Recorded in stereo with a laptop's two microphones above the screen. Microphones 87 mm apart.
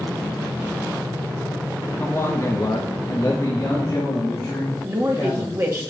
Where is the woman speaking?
35° right (ahead or behind), 1.7 m.